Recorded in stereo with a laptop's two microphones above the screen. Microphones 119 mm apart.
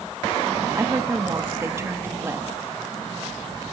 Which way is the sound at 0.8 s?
20° right (ahead or behind).